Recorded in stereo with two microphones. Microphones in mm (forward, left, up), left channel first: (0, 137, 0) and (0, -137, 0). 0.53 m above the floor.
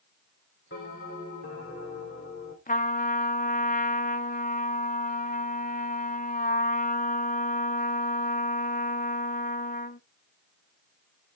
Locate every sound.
0.7 s a bell: 45° left (ahead or behind), 6 m
2.7 s a trumpet: 30° left (ahead or behind), 0.6 m